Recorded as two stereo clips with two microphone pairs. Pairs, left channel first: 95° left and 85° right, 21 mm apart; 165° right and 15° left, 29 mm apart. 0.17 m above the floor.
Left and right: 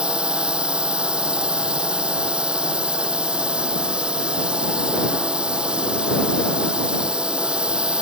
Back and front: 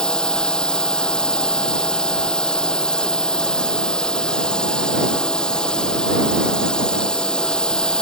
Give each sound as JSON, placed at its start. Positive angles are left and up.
{"t": 0.0, "sound": "a drone", "azimuth_deg": -110}